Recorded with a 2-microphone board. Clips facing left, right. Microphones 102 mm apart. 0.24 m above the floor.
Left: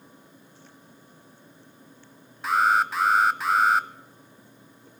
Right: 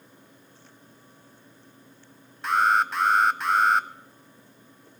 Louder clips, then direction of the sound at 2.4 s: Even; centre (ahead or behind).